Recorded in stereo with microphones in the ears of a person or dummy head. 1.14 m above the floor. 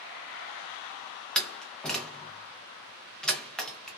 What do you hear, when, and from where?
1.4 s a door slam: centre (ahead or behind), 0.7 m